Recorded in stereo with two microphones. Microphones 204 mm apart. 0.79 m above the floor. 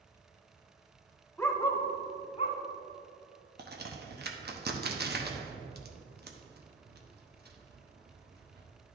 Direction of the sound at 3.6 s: 50° right (ahead or behind).